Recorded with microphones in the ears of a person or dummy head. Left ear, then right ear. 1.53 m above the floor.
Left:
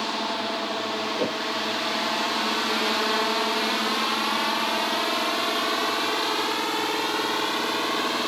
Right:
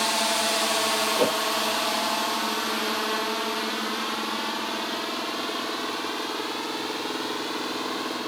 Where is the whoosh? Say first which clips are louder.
Right 4 dB; 35° right (ahead or behind).